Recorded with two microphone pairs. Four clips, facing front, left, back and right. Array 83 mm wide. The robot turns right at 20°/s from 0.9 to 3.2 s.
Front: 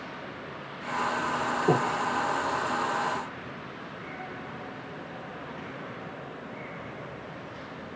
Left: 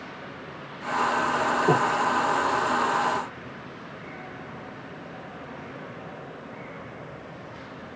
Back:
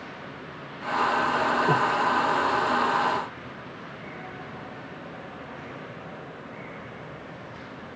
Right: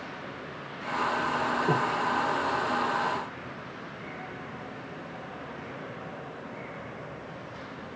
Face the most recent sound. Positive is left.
turn(degrees=85)